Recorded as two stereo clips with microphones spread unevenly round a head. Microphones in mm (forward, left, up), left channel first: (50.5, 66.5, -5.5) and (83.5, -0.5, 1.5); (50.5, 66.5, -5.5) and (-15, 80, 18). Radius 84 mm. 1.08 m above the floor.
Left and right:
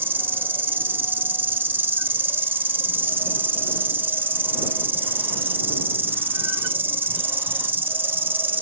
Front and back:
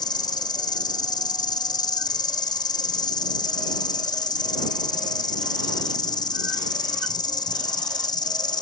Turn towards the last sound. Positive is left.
turn(degrees=0)